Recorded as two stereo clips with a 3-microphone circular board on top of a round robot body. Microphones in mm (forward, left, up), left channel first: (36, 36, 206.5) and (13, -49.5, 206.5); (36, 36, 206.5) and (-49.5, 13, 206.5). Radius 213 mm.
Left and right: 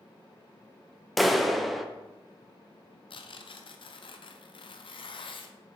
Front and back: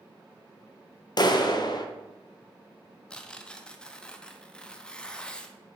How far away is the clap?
About 1.0 m.